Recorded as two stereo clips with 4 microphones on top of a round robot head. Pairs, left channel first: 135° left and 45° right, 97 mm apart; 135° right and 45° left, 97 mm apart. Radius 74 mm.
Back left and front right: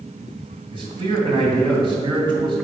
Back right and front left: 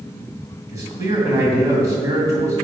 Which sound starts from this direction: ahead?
A man speaking, at 0.7 s.